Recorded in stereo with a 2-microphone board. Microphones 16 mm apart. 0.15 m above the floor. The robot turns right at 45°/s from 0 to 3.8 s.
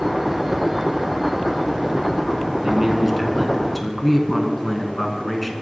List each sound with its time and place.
2.6 s a man speaking: 45° right, 1.5 m; by 5.5 s 5° left, 1.5 m